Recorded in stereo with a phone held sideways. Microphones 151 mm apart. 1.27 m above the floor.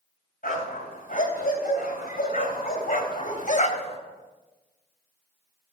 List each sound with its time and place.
0.4 s a dog barking: 65° left (ahead or behind), 3.5 m; by 4.0 s 40° left (ahead or behind), 1.2 m